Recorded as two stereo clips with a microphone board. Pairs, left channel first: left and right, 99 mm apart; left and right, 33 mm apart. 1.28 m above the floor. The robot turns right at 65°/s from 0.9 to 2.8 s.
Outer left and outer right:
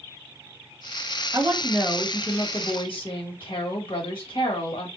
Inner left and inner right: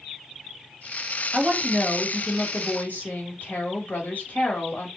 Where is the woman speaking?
35° right, 1.3 m; by 4.9 s 60° left, 1.3 m.